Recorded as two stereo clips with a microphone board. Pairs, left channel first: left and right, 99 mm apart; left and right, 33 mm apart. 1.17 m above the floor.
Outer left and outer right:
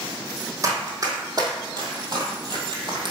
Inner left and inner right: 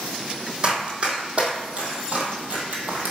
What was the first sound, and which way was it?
Running footsteps, 35° right (ahead or behind).